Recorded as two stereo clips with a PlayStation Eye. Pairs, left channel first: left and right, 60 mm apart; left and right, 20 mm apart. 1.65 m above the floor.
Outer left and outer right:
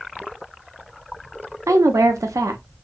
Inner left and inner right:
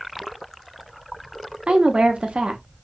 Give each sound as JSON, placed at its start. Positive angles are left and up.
{"t": 1.7, "sound": "a woman speaking", "side_deg": -60, "distance_m": 0.5}